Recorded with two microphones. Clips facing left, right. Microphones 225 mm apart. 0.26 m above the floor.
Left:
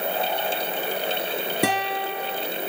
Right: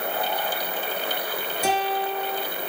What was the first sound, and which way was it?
A guitar, 75° left (ahead or behind).